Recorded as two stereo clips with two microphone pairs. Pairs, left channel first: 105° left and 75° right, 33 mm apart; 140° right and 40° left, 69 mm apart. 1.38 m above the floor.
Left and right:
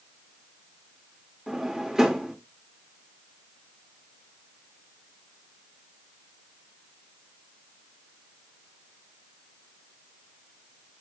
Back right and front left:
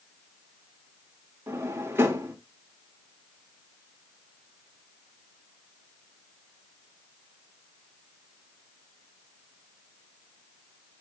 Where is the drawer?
10° right, 1.5 m.